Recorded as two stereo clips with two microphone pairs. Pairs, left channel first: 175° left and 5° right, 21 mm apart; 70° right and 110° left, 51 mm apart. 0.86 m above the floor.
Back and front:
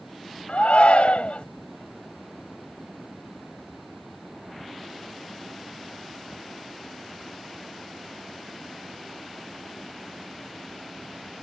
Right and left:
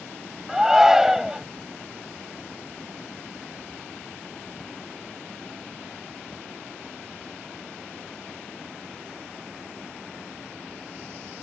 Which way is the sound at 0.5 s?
165° right.